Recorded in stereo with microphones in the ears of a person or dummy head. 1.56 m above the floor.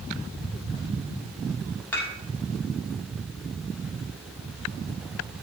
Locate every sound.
1.9 s dishes clattering: 15° left (ahead or behind), 2.5 m